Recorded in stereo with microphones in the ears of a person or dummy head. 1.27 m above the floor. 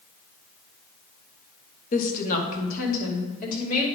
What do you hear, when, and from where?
1.9 s a woman speaking: 50° left (ahead or behind), 1.4 m